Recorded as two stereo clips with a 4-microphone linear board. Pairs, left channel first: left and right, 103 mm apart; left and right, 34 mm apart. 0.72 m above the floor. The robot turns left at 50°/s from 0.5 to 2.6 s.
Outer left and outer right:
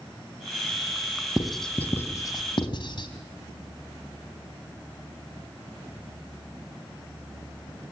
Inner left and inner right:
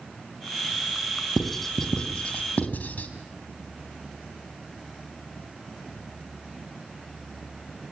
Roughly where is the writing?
Centre.